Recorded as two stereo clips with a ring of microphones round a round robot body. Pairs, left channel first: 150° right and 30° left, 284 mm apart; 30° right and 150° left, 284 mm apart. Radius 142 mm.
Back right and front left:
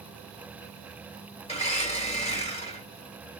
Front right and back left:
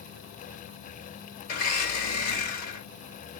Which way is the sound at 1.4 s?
80° right.